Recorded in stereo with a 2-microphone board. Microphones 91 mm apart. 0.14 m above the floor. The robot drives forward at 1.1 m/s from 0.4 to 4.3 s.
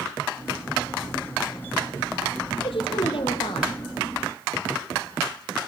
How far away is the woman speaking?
About 4.5 m.